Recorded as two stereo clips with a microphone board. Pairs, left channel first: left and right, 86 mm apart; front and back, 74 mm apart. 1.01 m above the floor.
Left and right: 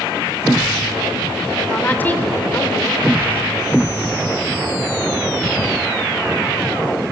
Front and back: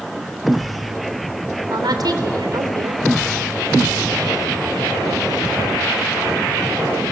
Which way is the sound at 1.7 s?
160° left.